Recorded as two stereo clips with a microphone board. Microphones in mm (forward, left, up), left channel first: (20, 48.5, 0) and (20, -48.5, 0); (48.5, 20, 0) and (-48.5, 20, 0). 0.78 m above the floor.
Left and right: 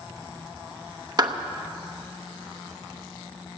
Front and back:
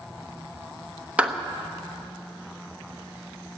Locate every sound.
1.2 s a clap: 110° right, 0.8 m